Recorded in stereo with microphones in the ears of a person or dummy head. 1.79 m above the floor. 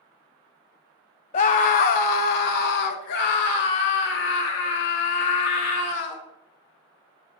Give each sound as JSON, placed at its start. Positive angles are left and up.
{"t": 1.3, "sound": "a scream", "side_deg": 35, "distance_m": 0.6}